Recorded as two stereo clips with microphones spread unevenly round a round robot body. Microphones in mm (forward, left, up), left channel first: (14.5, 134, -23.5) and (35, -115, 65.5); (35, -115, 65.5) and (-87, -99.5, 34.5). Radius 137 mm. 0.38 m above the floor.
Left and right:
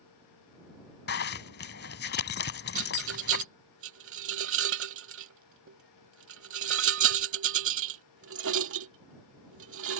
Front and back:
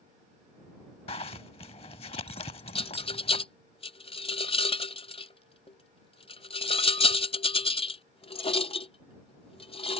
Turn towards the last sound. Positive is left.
turn(degrees=-45)